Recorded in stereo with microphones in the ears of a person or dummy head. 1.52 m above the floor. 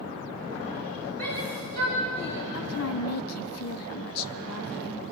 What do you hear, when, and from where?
1.2 s a shout: 10° left (ahead or behind), 3.5 m; by 2.4 s 35° left (ahead or behind), 3 m
2.5 s a woman speaking: 75° left (ahead or behind), 0.8 m